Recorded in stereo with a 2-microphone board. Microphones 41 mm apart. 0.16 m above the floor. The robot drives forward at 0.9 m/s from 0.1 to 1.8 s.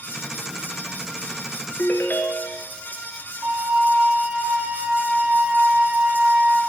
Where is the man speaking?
I don't hear a man speaking.